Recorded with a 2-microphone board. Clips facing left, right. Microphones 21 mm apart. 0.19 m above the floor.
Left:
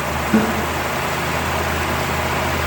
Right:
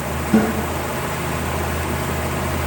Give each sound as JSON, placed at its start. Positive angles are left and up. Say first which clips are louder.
{"t": 0.3, "sound": "a guitar", "louder": "right 1 dB", "side_deg": 25, "distance_m": 2.0}